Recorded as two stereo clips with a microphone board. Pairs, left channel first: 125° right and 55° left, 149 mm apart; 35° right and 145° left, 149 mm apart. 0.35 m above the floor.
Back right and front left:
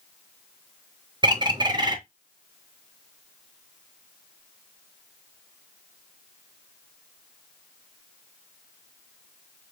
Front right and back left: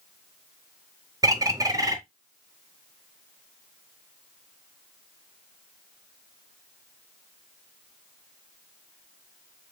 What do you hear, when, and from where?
1.2 s a bird: 95° left, 0.8 m